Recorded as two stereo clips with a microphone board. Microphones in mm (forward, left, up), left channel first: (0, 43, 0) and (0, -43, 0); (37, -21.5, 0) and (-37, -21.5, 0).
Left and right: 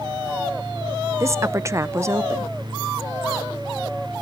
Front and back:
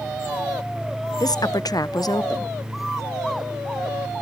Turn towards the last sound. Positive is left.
turn(degrees=-35)